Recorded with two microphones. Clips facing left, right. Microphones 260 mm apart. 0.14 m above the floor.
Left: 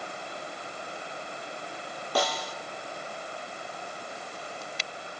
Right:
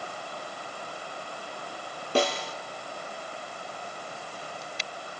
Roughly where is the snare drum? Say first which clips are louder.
Right 4 dB; right.